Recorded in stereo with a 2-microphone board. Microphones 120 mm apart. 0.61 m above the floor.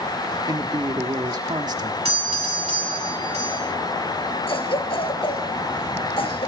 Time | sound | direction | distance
0.5 | a man speaking | 35° right (ahead or behind) | 1.3 m
2.0 | a doorbell | 60° right (ahead or behind) | 3 m
4.5 | a cough | 55° left (ahead or behind) | 3 m